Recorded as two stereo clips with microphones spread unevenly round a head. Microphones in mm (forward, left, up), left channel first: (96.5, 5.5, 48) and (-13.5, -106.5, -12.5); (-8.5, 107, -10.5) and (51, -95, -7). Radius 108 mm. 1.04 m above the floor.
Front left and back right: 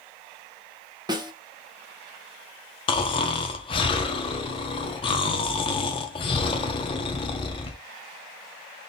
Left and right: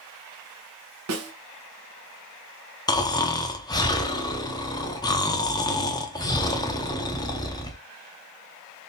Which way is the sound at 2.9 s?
40° left.